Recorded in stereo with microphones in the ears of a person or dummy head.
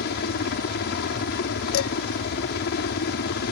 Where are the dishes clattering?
70° left (ahead or behind).